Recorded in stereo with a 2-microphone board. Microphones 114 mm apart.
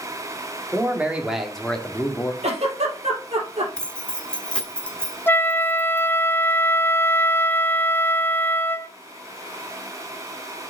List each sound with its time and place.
0.7 s a man speaking: 20° right (ahead or behind), 2.0 m; by 2.3 s 30° left (ahead or behind), 1.5 m
2.4 s a giggle: 75° right (ahead or behind), 3 m
3.8 s keys jangling: 10° left (ahead or behind), 1.2 m
5.3 s a flute: 20° left (ahead or behind), 0.5 m